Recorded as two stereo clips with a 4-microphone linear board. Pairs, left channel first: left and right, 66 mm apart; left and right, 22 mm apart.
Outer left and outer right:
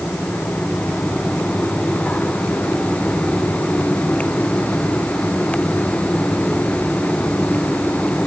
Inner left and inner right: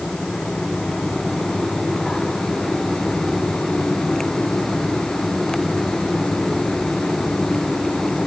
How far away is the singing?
I don't hear singing.